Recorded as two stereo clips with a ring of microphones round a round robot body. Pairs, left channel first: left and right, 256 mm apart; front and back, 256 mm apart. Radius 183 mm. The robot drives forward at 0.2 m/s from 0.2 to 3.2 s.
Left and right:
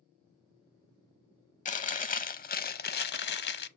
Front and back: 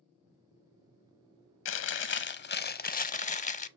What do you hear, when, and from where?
1.6 s chewing: 30° left, 0.7 m; by 3.7 s 55° left, 0.5 m